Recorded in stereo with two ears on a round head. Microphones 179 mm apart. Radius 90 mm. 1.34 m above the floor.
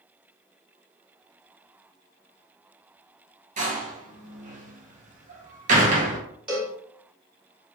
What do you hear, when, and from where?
3.6 s a door slam: 40° right (ahead or behind), 0.9 m
6.5 s a cowbell: 5° right (ahead or behind), 1.1 m